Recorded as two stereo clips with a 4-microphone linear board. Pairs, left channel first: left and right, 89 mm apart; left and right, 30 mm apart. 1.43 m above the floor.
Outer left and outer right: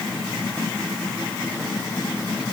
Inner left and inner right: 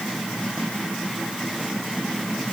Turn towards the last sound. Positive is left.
No sound to turn to.